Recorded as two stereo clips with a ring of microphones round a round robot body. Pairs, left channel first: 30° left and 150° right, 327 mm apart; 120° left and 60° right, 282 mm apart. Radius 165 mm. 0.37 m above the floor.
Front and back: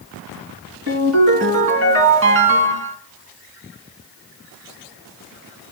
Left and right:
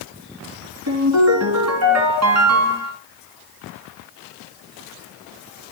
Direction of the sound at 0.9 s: 100° right.